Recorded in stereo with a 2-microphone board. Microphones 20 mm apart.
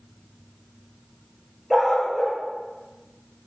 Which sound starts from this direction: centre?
A dog barking, at 1.7 s.